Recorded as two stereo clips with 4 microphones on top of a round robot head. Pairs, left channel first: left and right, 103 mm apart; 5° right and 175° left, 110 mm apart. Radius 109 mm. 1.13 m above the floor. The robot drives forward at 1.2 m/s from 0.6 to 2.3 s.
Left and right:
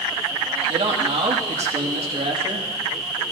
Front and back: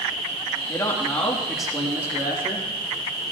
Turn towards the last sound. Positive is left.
turn(degrees=-115)